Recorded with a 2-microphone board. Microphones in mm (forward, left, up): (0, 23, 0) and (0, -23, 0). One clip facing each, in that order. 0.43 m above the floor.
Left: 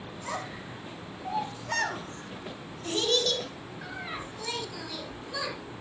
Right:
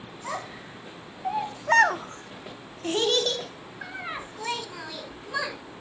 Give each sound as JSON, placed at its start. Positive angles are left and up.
{"t": 0.2, "sound": "a child speaking", "side_deg": -5, "distance_m": 1.3}